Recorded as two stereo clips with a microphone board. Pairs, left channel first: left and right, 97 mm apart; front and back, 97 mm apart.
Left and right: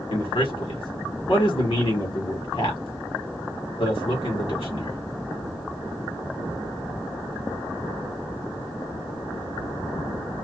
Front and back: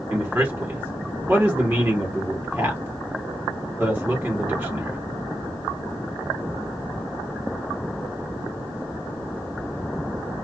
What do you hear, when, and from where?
0.1 s a man speaking: 110° left, 1.3 m